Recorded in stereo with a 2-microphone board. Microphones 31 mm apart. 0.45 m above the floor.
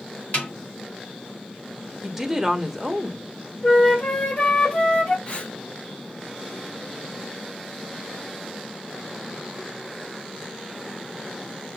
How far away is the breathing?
About 0.9 m.